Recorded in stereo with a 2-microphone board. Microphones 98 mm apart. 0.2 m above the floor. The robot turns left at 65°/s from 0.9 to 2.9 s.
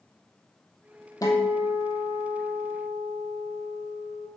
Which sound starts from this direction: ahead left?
A guitar, at 1.2 s.